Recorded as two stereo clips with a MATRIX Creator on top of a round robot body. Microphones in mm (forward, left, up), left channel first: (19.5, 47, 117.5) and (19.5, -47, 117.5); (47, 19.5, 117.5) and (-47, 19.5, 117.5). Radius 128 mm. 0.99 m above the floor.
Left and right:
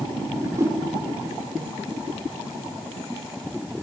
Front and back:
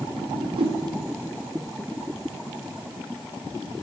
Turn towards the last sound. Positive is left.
turn(degrees=-150)